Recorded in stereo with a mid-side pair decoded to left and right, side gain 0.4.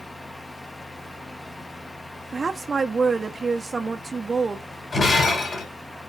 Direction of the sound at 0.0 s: 25° left.